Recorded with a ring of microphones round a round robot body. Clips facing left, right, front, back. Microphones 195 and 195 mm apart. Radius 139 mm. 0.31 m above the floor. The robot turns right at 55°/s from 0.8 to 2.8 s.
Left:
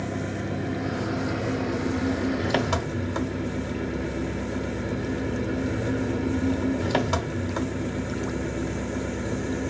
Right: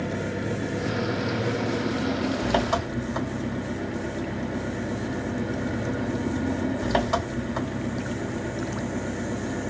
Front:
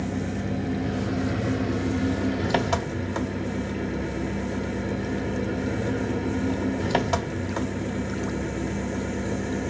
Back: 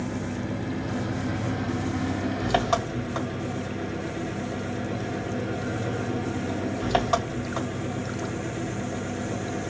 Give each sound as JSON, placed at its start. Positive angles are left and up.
{"t": 0.0, "sound": "an engine running", "azimuth_deg": -50, "distance_m": 1.2}